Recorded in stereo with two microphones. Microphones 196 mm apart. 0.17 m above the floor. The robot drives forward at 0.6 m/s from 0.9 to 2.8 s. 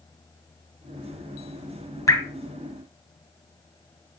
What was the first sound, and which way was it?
Dripping, 15° left (ahead or behind).